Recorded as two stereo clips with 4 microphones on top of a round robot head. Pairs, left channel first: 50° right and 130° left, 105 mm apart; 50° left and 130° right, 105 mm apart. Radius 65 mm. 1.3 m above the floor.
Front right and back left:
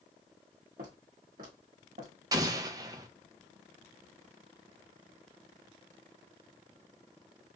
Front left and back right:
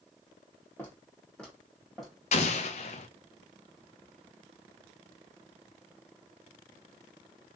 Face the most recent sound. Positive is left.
turn(degrees=75)